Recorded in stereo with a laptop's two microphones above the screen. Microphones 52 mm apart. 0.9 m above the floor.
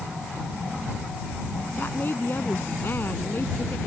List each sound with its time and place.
1.8 s a woman speaking: 45° left (ahead or behind)